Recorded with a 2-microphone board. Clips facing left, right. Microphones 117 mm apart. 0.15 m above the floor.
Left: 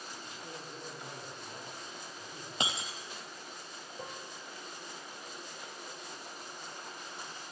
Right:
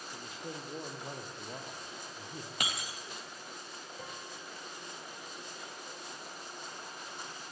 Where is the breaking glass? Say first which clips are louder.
Left 4 dB; 25° left (ahead or behind), 2.5 m.